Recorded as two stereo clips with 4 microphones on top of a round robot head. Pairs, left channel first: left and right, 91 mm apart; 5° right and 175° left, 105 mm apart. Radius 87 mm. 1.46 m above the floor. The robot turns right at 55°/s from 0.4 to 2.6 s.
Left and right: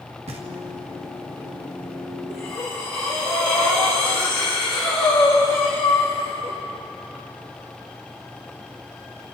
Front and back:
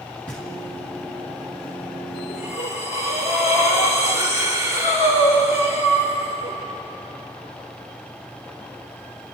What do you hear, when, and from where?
0.3 s knocking: 85° right, 2 m; by 0.5 s 80° right, 2 m
2.3 s breathing: 5° right, 3.5 m; by 6.6 s 10° left, 3.5 m